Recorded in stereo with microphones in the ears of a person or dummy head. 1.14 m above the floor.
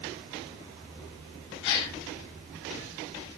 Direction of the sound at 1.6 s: 60° left (ahead or behind).